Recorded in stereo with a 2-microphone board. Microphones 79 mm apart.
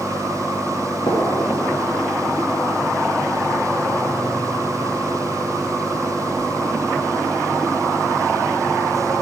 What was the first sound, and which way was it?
A gunshot, 60° left (ahead or behind).